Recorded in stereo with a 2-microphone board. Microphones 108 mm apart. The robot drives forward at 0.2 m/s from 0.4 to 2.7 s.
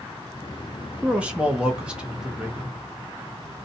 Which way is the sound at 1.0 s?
10° right (ahead or behind).